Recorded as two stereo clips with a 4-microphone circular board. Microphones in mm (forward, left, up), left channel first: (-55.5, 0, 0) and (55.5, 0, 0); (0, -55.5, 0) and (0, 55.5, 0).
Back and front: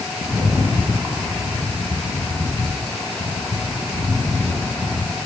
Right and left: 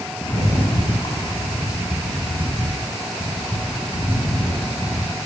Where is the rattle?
70° right, 0.9 m.